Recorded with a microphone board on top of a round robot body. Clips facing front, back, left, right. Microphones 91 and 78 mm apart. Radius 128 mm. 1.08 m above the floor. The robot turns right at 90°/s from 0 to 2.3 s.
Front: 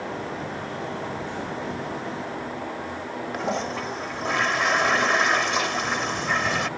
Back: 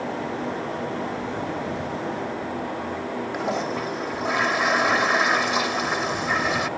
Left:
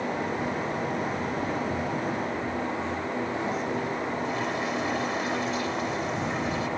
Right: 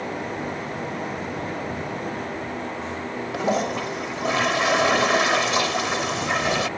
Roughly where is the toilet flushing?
Right.